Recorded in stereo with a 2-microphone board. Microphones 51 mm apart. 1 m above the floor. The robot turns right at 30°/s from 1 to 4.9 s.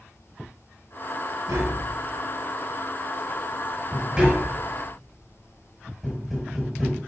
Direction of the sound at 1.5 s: 80° right.